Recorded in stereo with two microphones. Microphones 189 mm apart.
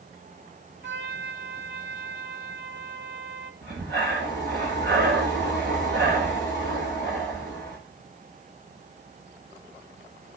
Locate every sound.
0.8 s a trumpet: 70° right (ahead or behind), 3 m
3.6 s breathing: 65° right (ahead or behind), 6 m